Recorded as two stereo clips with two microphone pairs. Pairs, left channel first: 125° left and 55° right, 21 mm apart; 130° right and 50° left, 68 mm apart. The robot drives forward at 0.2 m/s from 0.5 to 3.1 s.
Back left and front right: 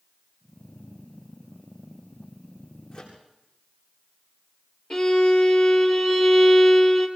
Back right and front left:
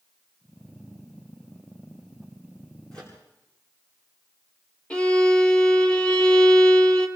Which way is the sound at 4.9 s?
155° left.